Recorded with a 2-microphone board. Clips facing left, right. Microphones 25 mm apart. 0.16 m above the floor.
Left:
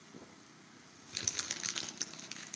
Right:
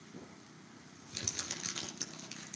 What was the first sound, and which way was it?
Crumpling, 20° left (ahead or behind).